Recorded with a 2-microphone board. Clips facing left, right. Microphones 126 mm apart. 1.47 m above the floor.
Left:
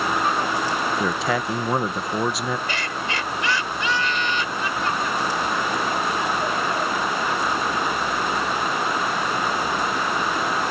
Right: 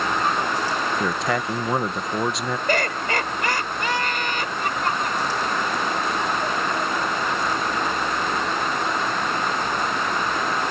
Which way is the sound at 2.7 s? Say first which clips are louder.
Right 5 dB; 50° right (ahead or behind).